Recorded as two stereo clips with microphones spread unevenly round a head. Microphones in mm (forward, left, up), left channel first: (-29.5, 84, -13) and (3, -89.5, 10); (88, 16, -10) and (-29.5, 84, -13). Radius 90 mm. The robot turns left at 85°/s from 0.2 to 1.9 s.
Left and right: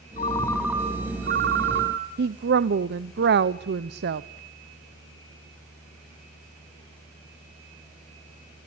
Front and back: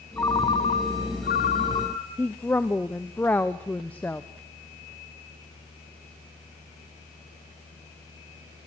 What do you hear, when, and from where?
0.2 s a ringtone: 40° left, 2 m; by 2.1 s 105° right, 2 m
2.2 s a woman speaking: 110° right, 0.7 m